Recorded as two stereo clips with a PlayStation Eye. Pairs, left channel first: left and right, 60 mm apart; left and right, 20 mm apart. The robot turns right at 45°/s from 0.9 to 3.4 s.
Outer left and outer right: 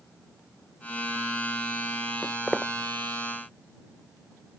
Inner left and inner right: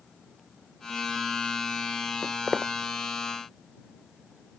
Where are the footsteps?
20° left (ahead or behind); by 2.7 s 5° right (ahead or behind).